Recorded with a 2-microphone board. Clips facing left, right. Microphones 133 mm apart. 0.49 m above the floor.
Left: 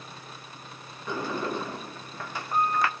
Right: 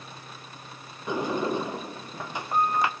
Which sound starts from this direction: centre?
A sliding door, at 1.1 s.